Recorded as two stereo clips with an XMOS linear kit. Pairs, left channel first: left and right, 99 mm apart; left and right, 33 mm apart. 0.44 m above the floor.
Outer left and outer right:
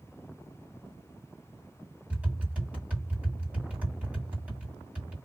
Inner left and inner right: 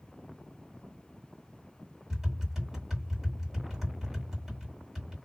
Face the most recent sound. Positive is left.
turn(degrees=-15)  # may be behind; listen again after turning